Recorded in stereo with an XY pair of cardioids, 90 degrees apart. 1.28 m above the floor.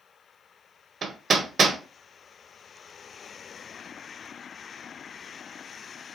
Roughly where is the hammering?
Ahead right.